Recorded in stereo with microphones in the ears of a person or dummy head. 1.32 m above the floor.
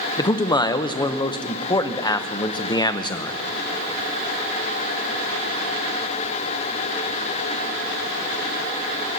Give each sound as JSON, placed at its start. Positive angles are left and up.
{"t": 0.2, "sound": "a man speaking", "side_deg": 20, "distance_m": 0.7}